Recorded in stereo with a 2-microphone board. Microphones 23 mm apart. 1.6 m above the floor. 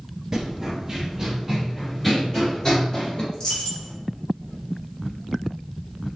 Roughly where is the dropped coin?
Left.